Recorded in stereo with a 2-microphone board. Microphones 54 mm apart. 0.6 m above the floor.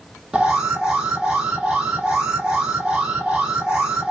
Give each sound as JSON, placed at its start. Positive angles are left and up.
{"t": 0.3, "sound": "an alarm", "side_deg": -15, "distance_m": 1.5}